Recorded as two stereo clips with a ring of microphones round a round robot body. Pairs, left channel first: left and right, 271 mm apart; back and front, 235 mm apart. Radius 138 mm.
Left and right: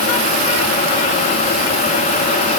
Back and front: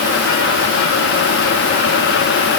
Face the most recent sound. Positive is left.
No sound to turn to.